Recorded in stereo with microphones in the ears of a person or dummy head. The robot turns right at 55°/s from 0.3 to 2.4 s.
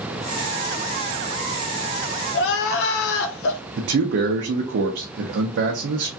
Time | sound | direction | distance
2.3 | crying | 65° left (ahead or behind) | 0.7 m
3.8 | a man speaking | 60° right (ahead or behind) | 0.6 m